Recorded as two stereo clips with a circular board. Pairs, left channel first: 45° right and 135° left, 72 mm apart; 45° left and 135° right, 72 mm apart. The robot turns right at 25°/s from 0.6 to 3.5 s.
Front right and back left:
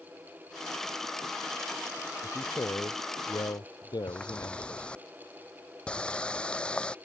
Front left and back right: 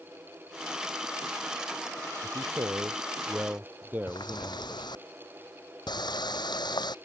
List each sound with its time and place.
2.2 s a man speaking: 100° right; by 4.9 s 70° right
4.1 s a running tap: 30° left